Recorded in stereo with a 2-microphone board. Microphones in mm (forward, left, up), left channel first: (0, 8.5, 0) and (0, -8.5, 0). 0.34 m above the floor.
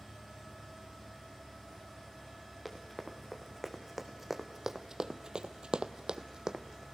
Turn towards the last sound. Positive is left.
turn(degrees=-40)  # may be behind; listen again after turning